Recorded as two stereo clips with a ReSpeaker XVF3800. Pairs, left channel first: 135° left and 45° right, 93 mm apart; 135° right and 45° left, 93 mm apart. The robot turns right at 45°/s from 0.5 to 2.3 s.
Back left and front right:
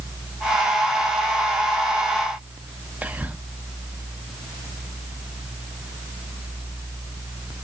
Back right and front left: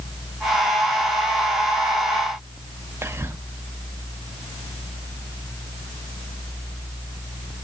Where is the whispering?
10° left, 0.6 m.